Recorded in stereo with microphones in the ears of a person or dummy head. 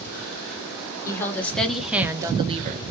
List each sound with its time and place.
1.1 s a woman speaking: 15° left (ahead or behind), 1.1 m; by 2.9 s 45° right (ahead or behind), 0.7 m